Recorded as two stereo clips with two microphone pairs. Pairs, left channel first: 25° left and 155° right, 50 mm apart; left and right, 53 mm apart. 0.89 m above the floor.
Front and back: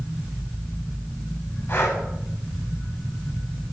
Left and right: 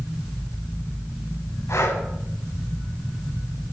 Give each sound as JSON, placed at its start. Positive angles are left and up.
{"t": 1.7, "sound": "breathing", "azimuth_deg": 75, "distance_m": 8.5}